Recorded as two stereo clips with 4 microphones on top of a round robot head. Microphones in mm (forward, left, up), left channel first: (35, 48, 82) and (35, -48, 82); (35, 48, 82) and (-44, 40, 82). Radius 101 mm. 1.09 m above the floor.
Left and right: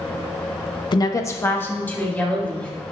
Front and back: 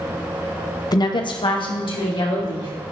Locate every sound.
0.9 s a woman speaking: 45° left, 0.8 m; by 2.7 s 15° left, 3.5 m